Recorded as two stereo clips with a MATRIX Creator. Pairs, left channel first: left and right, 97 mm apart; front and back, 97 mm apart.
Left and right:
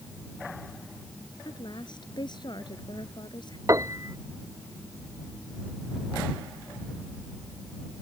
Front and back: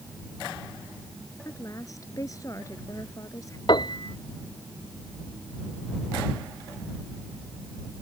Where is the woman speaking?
55° left.